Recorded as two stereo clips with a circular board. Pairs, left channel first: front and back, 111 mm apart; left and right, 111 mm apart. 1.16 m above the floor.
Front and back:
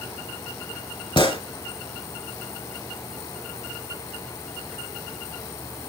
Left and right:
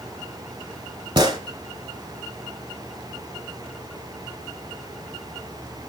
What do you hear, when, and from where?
1.2 s a gunshot: 40° right, 3 m